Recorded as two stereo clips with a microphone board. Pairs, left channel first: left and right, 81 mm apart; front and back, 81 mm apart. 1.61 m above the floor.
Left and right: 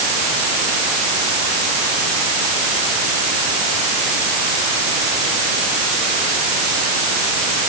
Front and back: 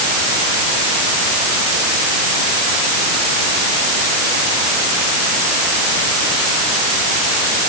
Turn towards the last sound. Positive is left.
No sound to turn to.